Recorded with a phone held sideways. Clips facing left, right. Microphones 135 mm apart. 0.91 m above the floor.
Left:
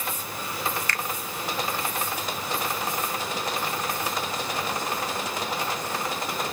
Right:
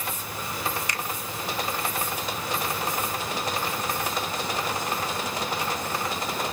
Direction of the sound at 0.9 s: 15° right (ahead or behind).